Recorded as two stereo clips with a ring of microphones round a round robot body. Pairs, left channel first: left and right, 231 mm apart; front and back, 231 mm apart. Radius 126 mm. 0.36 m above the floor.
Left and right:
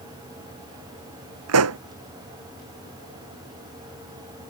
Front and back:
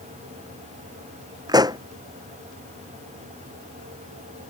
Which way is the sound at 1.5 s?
105° right.